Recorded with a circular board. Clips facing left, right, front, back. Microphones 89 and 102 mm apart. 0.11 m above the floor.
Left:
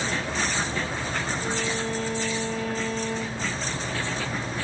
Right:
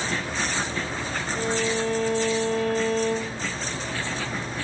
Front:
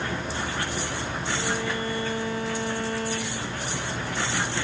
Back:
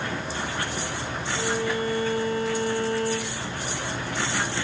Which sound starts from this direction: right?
A violin, at 1.3 s.